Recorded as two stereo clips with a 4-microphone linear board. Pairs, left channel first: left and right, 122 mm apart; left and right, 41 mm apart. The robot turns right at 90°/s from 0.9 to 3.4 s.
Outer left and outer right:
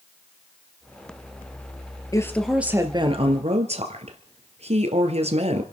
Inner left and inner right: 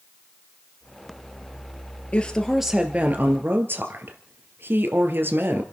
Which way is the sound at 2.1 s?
145° left.